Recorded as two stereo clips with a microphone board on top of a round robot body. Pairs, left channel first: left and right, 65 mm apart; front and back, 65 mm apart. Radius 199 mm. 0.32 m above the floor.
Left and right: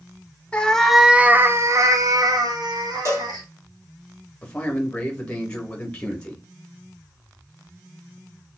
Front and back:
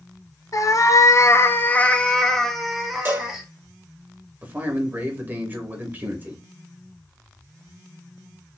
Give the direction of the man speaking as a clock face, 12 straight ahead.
7 o'clock.